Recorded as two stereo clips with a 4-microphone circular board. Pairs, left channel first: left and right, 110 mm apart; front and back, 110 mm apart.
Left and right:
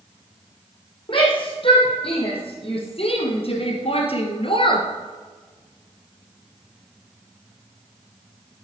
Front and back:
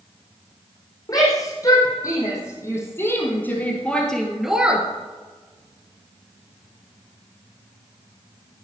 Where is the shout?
55° left, 6 m; by 4.9 s 110° left, 2 m.